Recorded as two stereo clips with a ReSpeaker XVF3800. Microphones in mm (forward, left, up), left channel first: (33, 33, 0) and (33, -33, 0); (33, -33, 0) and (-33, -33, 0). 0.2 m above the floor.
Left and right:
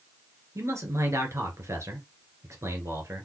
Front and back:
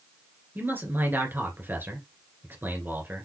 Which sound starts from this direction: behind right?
A man speaking, at 0.6 s.